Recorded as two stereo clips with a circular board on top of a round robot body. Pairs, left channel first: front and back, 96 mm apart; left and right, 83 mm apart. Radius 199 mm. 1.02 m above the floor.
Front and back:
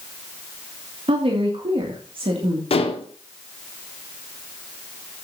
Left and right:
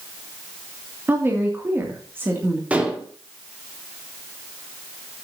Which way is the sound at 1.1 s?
155° right.